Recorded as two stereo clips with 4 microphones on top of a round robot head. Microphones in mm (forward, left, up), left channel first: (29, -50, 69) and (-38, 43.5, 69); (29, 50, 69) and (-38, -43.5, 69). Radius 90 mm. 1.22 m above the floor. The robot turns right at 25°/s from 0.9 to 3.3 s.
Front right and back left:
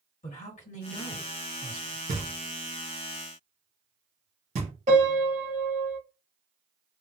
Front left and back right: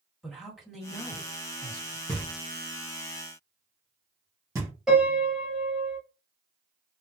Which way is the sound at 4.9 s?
150° left.